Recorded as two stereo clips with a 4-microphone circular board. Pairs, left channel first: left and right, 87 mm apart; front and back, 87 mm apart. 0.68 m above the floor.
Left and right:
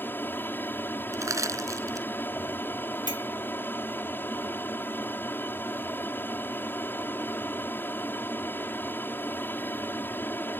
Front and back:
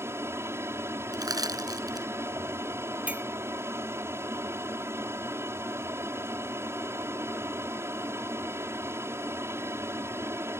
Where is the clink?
105° left.